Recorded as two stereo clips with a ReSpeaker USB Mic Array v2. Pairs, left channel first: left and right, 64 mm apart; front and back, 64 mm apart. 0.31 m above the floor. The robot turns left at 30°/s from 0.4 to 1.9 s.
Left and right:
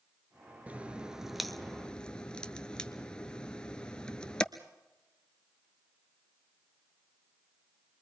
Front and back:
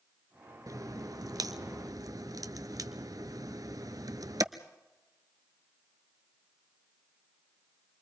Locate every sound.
0.7 s a crack: 155° right, 0.9 m; by 4.4 s 165° left, 0.9 m